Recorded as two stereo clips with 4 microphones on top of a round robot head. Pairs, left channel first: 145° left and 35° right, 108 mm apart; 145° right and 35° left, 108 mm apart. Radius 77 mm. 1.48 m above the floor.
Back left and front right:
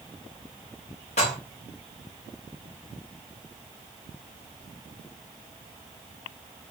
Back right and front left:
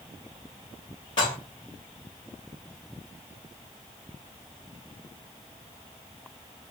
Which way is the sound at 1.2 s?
170° left.